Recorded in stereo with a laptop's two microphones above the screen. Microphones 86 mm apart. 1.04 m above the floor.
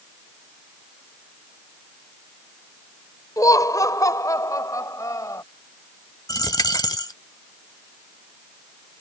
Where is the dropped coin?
50° left (ahead or behind).